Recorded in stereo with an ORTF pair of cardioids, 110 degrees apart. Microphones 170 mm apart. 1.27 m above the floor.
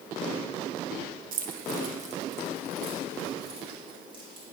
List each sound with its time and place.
1.3 s keys jangling: 65° right, 0.9 m; by 4.4 s 30° right, 3.5 m